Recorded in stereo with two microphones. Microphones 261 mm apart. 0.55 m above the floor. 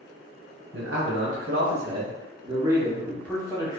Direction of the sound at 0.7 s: 60° right (ahead or behind).